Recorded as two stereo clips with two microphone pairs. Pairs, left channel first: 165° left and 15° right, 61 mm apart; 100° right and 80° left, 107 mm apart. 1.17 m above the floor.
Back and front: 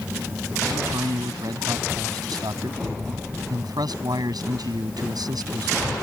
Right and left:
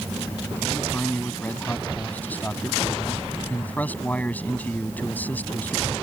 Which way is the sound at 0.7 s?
25° right.